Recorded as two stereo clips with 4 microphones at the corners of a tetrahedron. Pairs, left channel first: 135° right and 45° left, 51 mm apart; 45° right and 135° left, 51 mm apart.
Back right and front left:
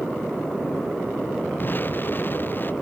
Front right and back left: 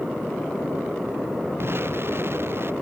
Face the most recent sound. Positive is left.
turn(degrees=175)